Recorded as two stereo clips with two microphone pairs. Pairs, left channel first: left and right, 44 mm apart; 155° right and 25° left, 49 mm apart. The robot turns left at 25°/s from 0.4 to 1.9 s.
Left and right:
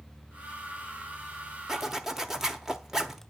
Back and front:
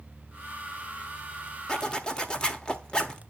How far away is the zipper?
About 1.1 m.